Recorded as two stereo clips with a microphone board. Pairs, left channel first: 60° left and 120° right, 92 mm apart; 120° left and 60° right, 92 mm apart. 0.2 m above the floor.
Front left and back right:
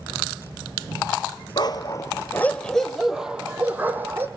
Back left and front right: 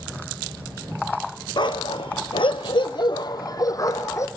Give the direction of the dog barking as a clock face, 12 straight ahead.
9 o'clock.